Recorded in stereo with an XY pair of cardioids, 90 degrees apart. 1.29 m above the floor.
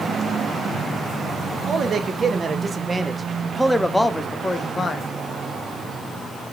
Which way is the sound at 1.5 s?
45° right.